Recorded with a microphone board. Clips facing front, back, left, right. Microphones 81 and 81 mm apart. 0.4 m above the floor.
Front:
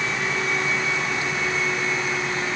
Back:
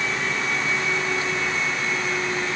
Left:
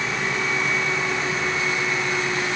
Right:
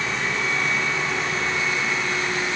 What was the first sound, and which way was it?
Only background noise.